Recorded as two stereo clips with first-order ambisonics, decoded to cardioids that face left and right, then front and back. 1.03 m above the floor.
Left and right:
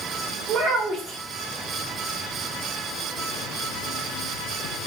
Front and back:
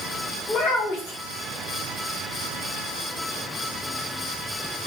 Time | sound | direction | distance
0.5 | a child speaking | 40° right | 1.5 m